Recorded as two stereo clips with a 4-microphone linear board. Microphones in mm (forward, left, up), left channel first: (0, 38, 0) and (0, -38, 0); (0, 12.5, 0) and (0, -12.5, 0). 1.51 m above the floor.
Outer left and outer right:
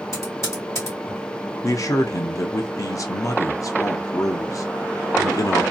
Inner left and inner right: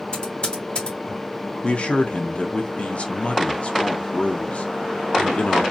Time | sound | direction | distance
0.1 | typing on a keyboard | 45° left (ahead or behind) | 1.5 m
1.6 | a man speaking | 50° left (ahead or behind) | 0.7 m